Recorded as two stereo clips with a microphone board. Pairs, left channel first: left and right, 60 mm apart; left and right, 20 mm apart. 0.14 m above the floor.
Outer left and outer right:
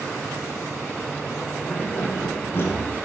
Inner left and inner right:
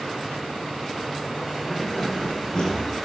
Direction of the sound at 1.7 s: 45° left (ahead or behind).